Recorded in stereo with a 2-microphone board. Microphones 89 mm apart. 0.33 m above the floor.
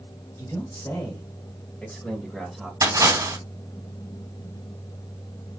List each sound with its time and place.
0.4 s a man speaking: 45° left (ahead or behind), 1.5 m; by 2.7 s centre (ahead or behind), 1.3 m
2.8 s a splash: 40° right (ahead or behind), 2.5 m